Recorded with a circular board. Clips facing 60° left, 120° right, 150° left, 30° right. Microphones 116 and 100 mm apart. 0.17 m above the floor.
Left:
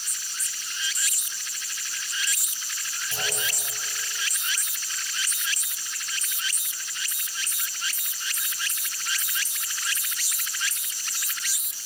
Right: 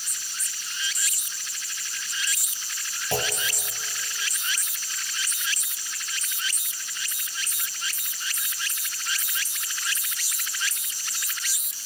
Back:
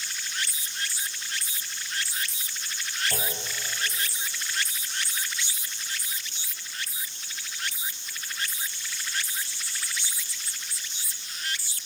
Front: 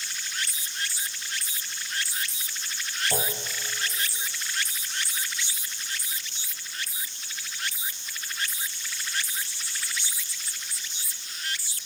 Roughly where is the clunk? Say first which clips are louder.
Right 7 dB, front 3 dB; right.